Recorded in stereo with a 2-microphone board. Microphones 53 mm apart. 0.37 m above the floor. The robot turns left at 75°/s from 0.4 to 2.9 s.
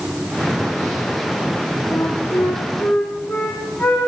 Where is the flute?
130° left, 8 m; by 4.1 s 55° left, 8 m.